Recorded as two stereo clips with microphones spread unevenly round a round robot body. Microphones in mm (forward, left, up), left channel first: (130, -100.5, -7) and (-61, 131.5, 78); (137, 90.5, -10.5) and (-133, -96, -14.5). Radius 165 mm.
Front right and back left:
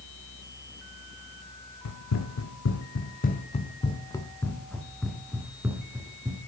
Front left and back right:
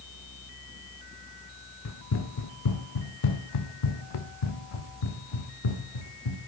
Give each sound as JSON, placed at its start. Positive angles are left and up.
{"t": 1.9, "sound": "running footsteps", "azimuth_deg": -15, "distance_m": 1.6}